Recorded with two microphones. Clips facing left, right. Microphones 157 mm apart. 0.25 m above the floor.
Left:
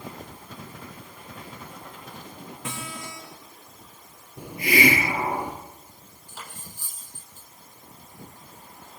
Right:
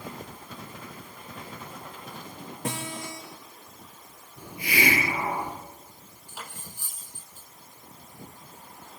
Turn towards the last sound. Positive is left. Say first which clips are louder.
# even
turn(degrees=-10)  # may be behind; listen again after turning